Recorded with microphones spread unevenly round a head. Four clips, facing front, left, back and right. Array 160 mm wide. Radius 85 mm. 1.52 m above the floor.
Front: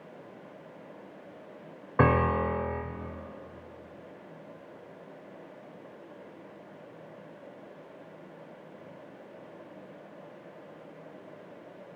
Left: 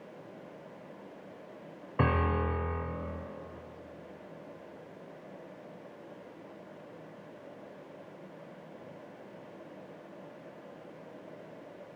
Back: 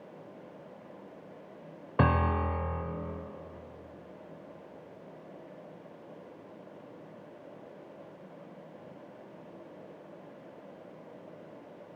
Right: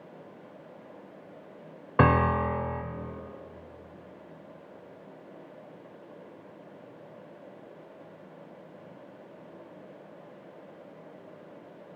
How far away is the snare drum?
No snare drum in this recording.